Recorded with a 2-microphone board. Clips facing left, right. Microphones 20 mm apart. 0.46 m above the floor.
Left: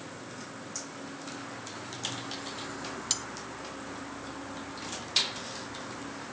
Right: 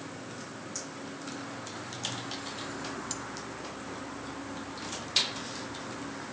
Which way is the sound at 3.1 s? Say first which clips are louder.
Left 5 dB; 60° left (ahead or behind).